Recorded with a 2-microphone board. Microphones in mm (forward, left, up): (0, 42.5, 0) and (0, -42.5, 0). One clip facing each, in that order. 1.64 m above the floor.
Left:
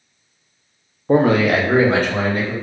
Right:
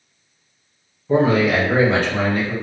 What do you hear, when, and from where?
1.1 s a man speaking: 50° left (ahead or behind), 0.5 m; by 2.5 s 40° left (ahead or behind), 1.6 m